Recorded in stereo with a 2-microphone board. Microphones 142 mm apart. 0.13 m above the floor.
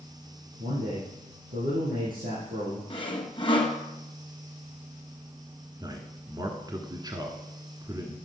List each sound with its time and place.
0.6 s a man speaking: 80° right, 6.5 m
2.9 s sawing: 35° left (ahead or behind), 1.7 m
5.8 s a man speaking: 30° right (ahead or behind), 1.3 m